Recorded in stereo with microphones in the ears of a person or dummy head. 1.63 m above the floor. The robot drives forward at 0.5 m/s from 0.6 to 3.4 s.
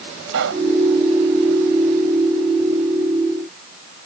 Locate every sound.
0.3 s a pop: 65° right (ahead or behind)